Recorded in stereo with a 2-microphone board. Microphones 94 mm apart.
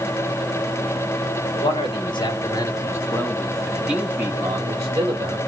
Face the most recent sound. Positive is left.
turn(degrees=-45)  # may be behind; listen again after turning